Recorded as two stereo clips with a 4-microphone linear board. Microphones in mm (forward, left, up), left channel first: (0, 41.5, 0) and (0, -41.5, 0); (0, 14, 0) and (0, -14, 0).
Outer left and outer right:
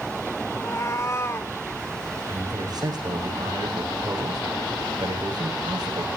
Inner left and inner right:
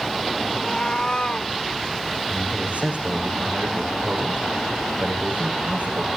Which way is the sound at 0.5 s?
40° left (ahead or behind).